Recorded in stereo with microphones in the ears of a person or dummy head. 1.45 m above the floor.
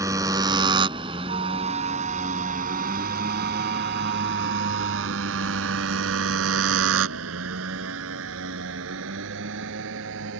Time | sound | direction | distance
0.0 | a motorcycle | 25° right (ahead or behind) | ?
1.3 | a flute | 35° right (ahead or behind) | ?